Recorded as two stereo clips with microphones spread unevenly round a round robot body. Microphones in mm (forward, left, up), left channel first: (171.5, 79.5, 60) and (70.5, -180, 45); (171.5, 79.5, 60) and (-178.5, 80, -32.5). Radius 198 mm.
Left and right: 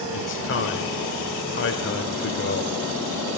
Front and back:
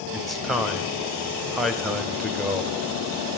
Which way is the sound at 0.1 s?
105° left.